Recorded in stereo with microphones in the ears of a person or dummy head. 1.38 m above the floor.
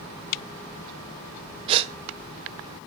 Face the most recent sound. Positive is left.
turn(degrees=-35)  # may be behind; listen again after turning